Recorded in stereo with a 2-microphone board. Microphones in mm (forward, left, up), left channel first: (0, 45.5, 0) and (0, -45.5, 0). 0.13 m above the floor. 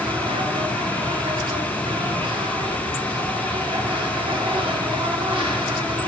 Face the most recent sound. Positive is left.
turn(degrees=-90)